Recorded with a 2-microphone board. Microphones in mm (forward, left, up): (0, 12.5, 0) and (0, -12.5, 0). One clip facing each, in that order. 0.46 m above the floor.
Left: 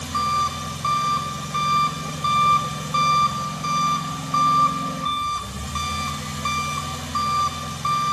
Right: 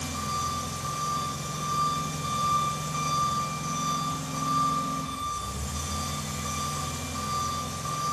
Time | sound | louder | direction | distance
0.0 | an engine running | left 9 dB | 65° left (ahead or behind) | 0.9 m